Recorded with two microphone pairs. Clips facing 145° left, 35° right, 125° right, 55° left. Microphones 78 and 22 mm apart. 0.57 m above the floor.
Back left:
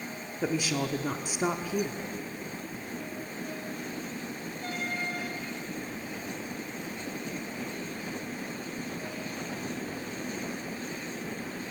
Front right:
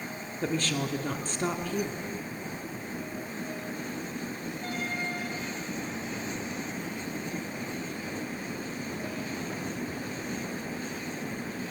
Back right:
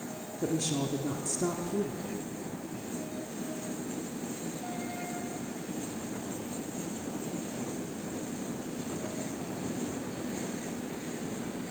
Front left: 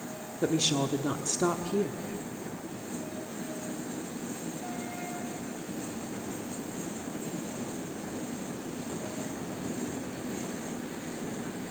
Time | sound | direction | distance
0.4 | a woman speaking | 70° left | 1.1 m